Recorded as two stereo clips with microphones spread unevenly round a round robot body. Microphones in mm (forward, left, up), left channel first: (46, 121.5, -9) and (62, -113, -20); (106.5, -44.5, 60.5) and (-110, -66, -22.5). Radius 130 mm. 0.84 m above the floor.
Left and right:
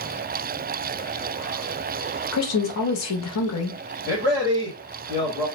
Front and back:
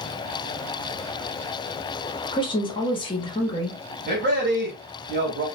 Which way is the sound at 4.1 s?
160° right.